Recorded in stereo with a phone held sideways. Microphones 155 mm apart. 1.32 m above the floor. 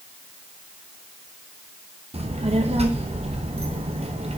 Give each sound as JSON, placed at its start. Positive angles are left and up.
{"t": 2.1, "sound": "a child speaking", "side_deg": -45, "distance_m": 0.9}